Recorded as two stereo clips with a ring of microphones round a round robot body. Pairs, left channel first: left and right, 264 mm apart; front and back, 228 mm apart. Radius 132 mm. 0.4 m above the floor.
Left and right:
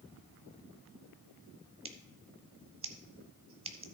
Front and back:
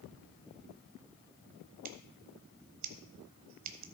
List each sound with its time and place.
1.9 s scissors: 160° right, 0.9 m